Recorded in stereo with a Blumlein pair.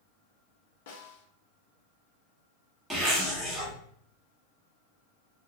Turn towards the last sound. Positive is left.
turn(degrees=-10)